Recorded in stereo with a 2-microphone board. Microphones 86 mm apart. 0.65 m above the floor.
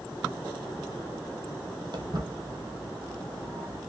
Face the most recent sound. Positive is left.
turn(degrees=-35)  # may be behind; listen again after turning